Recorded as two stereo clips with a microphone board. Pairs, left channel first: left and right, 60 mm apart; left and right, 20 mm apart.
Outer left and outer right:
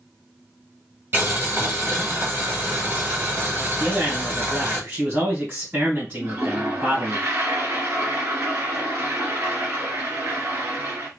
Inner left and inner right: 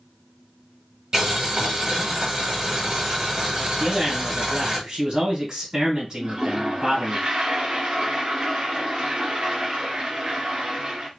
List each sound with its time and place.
1.1 s boiling: 35° right (ahead or behind), 1.5 m
3.8 s a man speaking: 25° right (ahead or behind), 2.5 m
6.2 s a toilet flushing: 40° right (ahead or behind), 1.5 m